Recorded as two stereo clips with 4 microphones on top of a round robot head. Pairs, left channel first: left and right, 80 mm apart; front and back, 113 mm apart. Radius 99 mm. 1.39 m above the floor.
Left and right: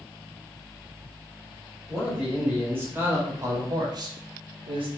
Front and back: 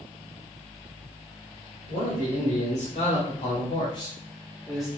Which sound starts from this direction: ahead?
A man speaking, at 1.9 s.